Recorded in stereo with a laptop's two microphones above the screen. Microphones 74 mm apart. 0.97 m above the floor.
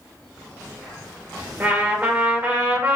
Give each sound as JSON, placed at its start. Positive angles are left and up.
{"t": 1.6, "sound": "a trumpet", "side_deg": -20, "distance_m": 1.7}